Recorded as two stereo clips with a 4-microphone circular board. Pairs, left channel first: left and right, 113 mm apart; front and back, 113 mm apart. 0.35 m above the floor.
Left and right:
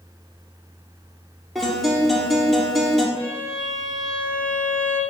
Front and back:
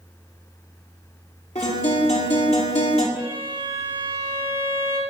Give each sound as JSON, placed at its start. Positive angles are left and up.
{"t": 1.6, "sound": "a guitar", "azimuth_deg": 0, "distance_m": 4.5}
{"t": 3.1, "sound": "a violin", "azimuth_deg": 110, "distance_m": 5.0}